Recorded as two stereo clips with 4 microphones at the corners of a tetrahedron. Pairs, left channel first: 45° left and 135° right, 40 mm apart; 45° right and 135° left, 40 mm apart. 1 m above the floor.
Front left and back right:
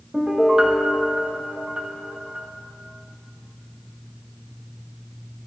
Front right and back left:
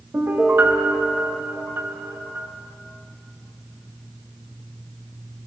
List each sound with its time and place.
0.1 s a piano: 155° left, 1.0 m